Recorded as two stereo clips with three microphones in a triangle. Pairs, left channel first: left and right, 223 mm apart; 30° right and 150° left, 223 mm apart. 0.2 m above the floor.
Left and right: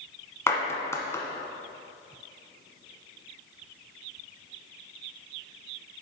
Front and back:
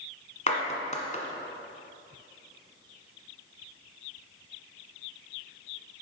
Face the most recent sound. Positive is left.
turn(degrees=15)